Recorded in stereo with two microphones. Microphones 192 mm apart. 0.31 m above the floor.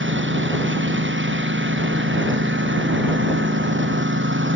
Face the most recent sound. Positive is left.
turn(degrees=-85)